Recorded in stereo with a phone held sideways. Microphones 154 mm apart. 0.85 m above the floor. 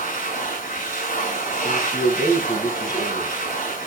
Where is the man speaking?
25° left (ahead or behind), 6.5 m.